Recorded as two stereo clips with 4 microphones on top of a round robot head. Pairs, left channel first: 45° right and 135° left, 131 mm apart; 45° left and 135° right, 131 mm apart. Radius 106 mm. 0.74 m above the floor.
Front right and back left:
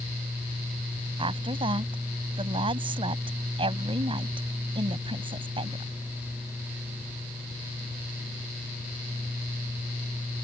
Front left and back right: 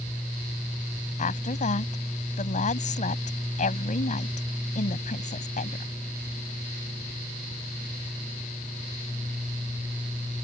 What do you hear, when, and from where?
1.2 s a woman speaking: 80° left